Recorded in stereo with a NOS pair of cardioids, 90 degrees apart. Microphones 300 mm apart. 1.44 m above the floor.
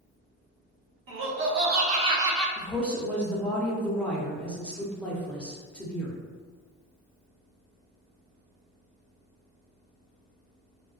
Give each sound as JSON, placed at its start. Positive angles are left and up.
{"t": 1.1, "sound": "laughter", "azimuth_deg": -50, "distance_m": 1.0}
{"t": 2.6, "sound": "a woman speaking", "azimuth_deg": 5, "distance_m": 0.6}